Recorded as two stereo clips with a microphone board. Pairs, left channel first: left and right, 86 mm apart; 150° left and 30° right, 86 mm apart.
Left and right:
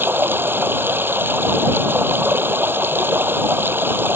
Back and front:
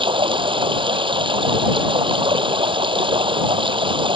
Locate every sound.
0.0 s running water: 25° right